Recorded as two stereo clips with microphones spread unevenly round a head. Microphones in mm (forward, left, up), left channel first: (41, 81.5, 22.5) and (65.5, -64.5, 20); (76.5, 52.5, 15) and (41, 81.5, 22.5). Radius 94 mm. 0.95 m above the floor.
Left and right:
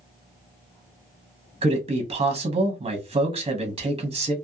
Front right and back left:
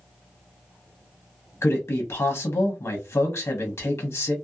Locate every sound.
1.6 s a man speaking: 30° right, 0.8 m